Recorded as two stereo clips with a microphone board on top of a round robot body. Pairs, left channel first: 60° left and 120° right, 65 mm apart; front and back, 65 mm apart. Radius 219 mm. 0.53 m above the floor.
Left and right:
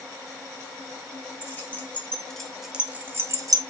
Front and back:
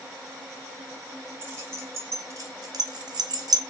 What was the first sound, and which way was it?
Keys jangling, 120° left.